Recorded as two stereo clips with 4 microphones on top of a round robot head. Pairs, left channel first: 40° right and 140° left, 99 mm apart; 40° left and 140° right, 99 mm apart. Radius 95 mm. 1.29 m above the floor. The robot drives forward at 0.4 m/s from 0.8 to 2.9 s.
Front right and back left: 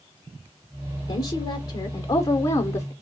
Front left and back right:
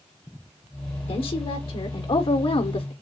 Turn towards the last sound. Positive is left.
turn(degrees=15)